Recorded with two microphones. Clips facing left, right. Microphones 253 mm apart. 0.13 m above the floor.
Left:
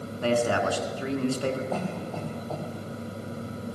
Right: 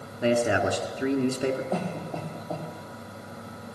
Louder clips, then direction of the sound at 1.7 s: Even; 15° right (ahead or behind).